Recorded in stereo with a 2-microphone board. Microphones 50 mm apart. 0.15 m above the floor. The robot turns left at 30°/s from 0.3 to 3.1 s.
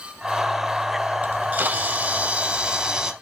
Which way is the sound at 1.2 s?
95° right.